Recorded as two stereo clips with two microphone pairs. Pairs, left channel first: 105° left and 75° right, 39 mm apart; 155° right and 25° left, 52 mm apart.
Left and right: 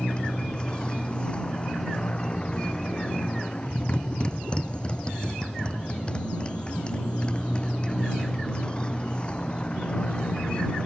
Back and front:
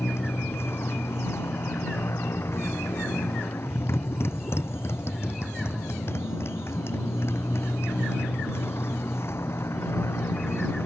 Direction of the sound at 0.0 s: 170° left.